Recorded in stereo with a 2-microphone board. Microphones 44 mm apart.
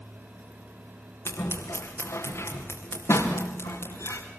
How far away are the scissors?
About 4.5 m.